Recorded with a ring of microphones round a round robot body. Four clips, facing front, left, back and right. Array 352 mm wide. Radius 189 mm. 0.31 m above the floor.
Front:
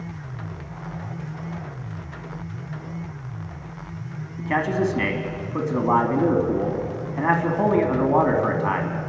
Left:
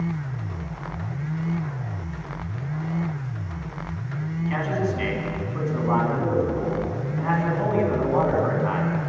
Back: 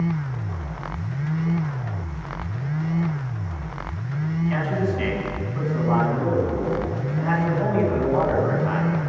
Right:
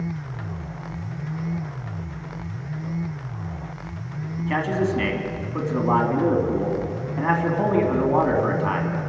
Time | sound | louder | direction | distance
4.4 | a man speaking | right 3 dB, front 3 dB | 25° right | 3.5 m